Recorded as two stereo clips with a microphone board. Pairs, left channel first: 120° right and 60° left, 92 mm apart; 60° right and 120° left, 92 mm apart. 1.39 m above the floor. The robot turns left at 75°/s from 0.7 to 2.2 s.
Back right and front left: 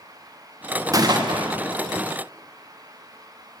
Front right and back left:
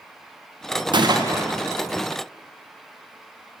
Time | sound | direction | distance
0.9 | a gunshot | 105° left | 0.6 m